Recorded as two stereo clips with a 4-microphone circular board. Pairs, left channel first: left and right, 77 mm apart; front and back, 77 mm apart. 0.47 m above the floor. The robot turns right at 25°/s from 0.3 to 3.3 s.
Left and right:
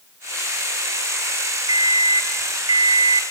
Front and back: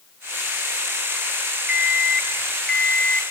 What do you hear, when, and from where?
1.7 s an alarm clock: 110° right, 1.1 m; by 3.2 s 70° right, 1.1 m